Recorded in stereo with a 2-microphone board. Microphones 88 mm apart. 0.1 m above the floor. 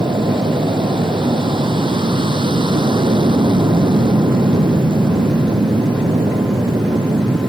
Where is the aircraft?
65° right (ahead or behind).